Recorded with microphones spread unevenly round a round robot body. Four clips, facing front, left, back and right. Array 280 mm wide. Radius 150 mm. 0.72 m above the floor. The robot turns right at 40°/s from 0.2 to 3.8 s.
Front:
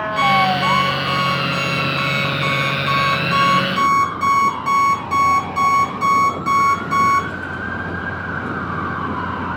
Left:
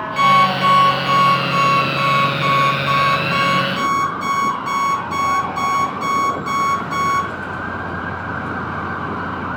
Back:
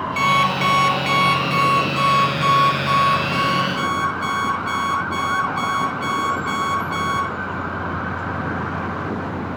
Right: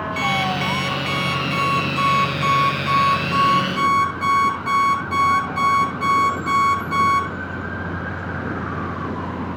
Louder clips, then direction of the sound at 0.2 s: Left 11 dB, front 3 dB; straight behind.